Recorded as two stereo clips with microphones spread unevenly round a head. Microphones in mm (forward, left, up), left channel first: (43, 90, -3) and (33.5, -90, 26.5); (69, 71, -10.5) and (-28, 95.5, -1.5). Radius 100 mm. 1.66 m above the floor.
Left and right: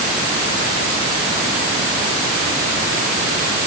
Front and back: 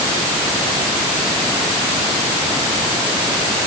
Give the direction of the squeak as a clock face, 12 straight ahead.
No squeak in this recording.